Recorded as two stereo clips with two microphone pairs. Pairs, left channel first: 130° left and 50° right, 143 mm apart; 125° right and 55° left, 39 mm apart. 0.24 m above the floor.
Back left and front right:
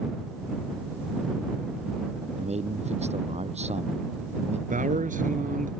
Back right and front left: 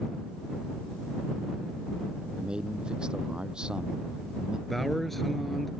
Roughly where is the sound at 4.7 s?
Ahead right.